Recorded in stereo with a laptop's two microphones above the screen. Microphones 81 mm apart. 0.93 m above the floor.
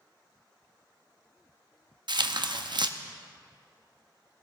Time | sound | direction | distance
2.1 | tearing paper | 65° right (ahead or behind) | 0.7 m